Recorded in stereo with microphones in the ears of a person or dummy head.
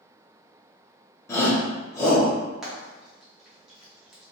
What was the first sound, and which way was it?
A shout, 15° left (ahead or behind).